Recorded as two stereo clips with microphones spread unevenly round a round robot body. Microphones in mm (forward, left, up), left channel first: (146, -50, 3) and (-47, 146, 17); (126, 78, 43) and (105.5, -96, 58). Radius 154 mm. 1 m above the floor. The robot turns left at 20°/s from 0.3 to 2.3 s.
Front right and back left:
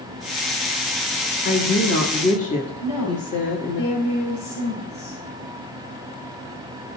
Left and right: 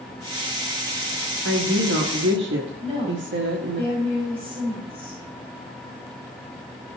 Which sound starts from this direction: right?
A woman speaking, at 1.4 s.